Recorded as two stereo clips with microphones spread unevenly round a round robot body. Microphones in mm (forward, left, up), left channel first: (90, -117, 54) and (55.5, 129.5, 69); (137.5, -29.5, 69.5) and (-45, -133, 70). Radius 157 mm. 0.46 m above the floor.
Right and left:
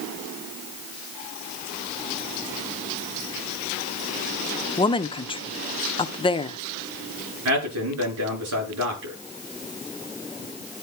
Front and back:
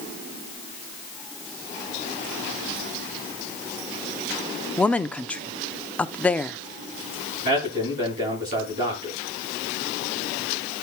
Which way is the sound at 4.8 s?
50° right.